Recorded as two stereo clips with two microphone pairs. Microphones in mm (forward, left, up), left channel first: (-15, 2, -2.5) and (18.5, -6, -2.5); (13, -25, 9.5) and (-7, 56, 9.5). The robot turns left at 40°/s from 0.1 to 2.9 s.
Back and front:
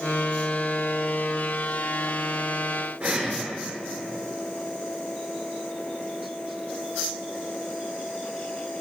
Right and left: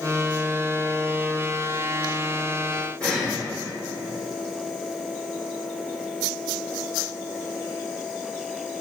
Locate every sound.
3.0 s breathing: straight ahead, 6 m